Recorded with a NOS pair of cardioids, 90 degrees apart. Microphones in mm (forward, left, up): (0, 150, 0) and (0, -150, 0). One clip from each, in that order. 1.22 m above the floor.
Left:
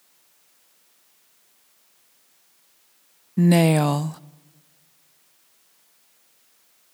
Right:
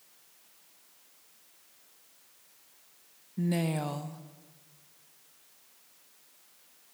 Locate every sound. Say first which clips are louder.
3.4 s a woman speaking: left 14 dB; 55° left, 0.6 m